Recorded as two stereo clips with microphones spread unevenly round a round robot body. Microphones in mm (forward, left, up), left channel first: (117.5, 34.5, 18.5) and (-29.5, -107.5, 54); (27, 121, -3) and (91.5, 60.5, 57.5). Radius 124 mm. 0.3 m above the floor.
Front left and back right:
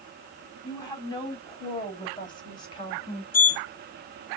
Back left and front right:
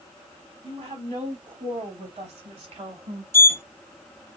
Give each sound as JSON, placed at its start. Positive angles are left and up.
{"t": 0.6, "sound": "a woman speaking", "azimuth_deg": -20, "distance_m": 4.0}
{"t": 3.3, "sound": "a sliding door", "azimuth_deg": 90, "distance_m": 0.7}